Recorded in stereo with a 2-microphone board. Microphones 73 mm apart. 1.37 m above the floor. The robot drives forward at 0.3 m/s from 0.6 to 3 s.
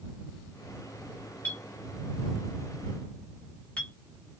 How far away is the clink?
About 1.0 m.